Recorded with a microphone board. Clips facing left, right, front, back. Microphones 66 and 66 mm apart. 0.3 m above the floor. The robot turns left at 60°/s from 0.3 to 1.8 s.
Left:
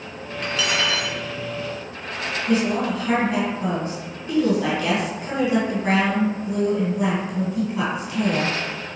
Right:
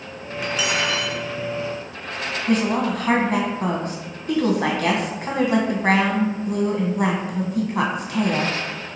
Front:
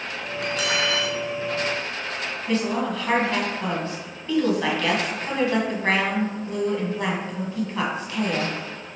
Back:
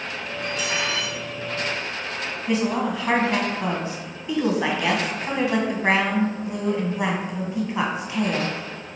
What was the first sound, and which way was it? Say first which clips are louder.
Cutlery clinking: even, front 2 dB; 10° right.